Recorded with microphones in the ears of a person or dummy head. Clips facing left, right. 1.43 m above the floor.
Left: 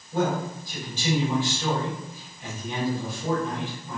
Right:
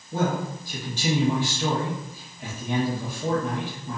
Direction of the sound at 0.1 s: 40° right (ahead or behind).